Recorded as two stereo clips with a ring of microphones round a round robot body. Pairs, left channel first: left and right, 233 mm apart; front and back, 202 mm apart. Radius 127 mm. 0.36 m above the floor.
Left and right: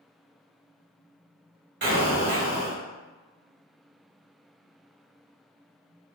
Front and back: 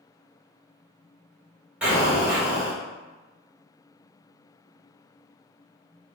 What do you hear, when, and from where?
1.8 s an explosion: 100° right, 1.4 m